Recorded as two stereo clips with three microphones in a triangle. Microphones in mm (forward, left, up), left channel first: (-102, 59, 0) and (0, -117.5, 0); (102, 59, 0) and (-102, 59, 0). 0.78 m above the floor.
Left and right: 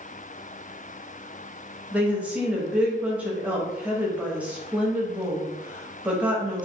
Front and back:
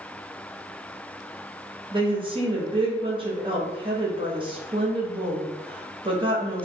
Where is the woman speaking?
140° right, 0.7 m.